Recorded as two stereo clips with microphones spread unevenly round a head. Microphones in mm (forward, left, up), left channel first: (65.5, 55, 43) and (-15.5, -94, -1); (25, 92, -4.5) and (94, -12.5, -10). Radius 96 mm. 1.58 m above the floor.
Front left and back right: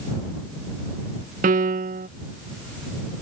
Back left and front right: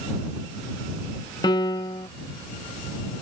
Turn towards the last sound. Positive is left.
turn(degrees=-175)